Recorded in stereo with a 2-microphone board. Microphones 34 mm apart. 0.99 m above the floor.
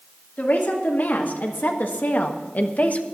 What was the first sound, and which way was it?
A woman speaking, 65° left (ahead or behind).